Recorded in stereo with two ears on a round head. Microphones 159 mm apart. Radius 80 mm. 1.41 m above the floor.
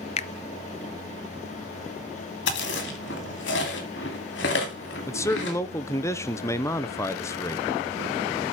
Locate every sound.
0.2 s a finger snap: 35° left (ahead or behind), 0.5 m
2.5 s chewing: 75° left (ahead or behind), 2.5 m
5.1 s a man speaking: 15° left (ahead or behind), 0.7 m